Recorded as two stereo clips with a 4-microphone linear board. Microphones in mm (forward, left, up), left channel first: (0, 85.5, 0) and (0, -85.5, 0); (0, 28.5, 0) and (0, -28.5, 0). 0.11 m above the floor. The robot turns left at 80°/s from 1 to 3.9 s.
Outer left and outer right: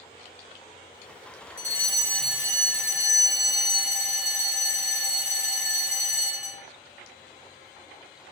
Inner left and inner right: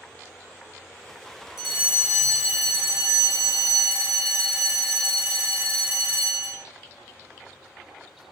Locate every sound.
1.6 s a fire alarm: 55° left, 6 m; by 6.6 s 130° right, 6 m